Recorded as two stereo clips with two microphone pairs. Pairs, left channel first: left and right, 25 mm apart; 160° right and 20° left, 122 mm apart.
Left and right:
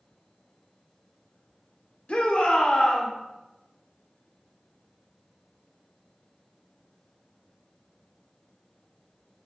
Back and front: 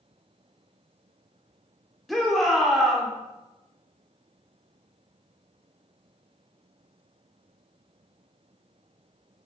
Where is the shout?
115° left, 1.9 m.